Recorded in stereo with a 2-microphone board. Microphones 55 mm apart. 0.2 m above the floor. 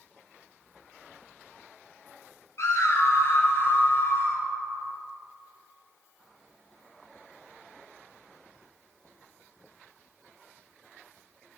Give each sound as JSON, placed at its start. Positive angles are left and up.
{"t": 2.6, "sound": "a scream", "side_deg": 60, "distance_m": 4.0}